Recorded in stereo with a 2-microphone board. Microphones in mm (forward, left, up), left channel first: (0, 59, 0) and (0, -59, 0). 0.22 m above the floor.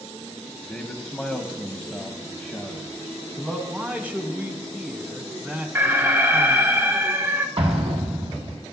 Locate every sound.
0.7 s a man speaking: 5° left (ahead or behind), 1.2 m; by 3.6 s 10° left (ahead or behind), 1.6 m
3.7 s a man speaking: 15° right (ahead or behind), 1.5 m
5.8 s an alarm: 20° right (ahead or behind), 1.1 m
7.6 s an explosion: 55° right (ahead or behind), 1.8 m